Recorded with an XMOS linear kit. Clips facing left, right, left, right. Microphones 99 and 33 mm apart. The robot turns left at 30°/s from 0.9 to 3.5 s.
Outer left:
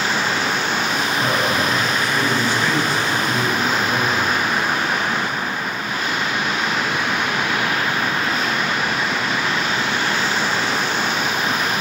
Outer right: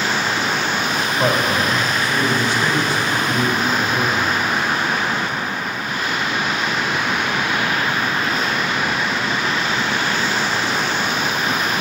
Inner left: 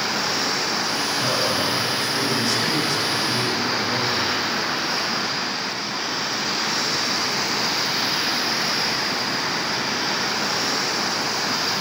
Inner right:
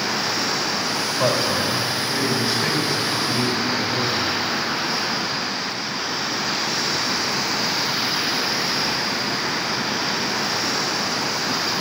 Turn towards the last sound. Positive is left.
turn(degrees=165)